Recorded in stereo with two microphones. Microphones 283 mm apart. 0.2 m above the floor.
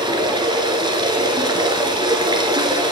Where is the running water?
15° right (ahead or behind), 1.3 m.